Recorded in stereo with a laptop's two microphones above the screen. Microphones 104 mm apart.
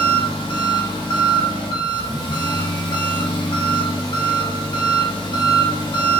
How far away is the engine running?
About 0.7 m.